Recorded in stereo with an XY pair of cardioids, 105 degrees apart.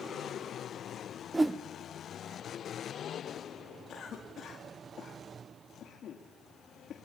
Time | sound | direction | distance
1.3 | a whoosh | 25° right | 0.8 m
3.9 | a cough | 55° left | 2.5 m